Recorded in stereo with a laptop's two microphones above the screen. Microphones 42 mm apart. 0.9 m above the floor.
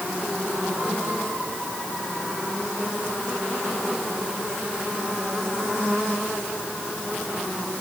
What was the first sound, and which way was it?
Only background noise.